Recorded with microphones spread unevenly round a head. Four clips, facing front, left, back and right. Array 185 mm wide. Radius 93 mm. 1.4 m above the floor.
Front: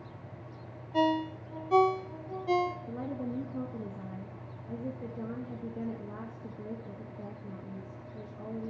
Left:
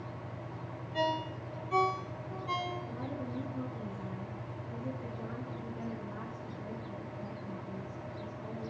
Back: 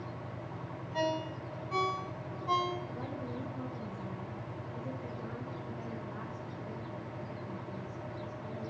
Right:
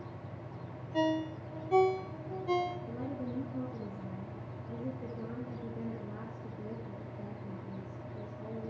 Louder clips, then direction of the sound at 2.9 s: Right 1 dB, front 4 dB; 10° right.